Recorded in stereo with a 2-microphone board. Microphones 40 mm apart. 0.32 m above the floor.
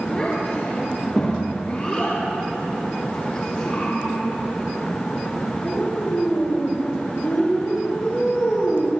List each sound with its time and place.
0.1 s a child speaking: 40° left (ahead or behind), 5 m; by 8.9 s 75° left (ahead or behind), 5 m